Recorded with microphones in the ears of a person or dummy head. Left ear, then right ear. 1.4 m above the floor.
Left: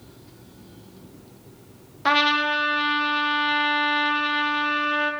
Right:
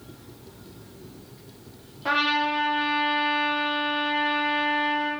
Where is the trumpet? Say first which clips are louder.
Left 3 dB; 55° left (ahead or behind), 0.7 m.